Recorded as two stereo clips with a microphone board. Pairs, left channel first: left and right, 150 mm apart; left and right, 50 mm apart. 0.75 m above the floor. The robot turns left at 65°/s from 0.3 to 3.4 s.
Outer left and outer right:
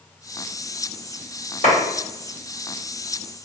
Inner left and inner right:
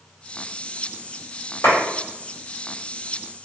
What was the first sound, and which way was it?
A clap, 65° left (ahead or behind).